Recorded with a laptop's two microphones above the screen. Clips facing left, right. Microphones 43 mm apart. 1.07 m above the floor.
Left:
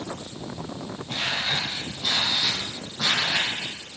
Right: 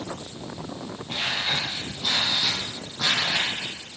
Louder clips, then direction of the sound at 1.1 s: Even; 10° right (ahead or behind).